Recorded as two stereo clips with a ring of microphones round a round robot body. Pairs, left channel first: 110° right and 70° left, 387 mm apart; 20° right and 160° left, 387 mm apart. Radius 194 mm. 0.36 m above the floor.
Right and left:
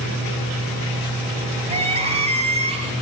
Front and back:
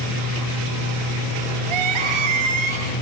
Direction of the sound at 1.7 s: 145° left.